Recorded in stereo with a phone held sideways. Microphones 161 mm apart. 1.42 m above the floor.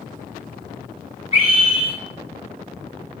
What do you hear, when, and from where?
1.3 s a scream: 45° left (ahead or behind), 3.5 m